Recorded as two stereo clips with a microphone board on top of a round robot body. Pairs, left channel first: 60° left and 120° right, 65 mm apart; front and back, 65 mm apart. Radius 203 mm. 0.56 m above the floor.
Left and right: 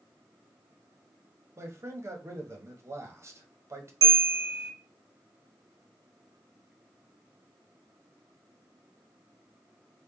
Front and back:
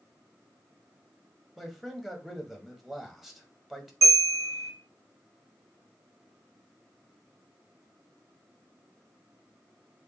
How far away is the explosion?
No explosion in this recording.